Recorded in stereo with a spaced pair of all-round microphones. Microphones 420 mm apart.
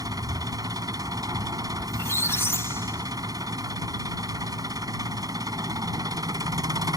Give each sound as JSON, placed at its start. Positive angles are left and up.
{"t": 0.0, "sound": "an engine running", "side_deg": -10}
{"t": 1.9, "sound": "a squeak", "side_deg": 5}